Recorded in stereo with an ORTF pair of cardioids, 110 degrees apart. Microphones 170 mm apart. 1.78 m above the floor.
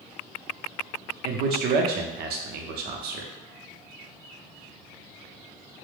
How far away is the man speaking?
About 0.6 m.